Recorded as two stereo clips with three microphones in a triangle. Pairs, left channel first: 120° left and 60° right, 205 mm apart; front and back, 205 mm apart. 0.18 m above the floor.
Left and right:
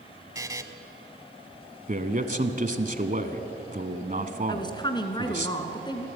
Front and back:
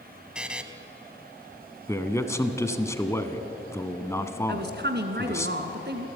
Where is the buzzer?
105° right, 1.0 m.